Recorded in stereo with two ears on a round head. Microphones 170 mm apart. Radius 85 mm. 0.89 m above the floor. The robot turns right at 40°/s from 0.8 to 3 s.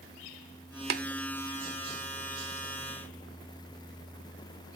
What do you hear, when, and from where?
0.9 s tapping: 55° right (ahead or behind), 0.8 m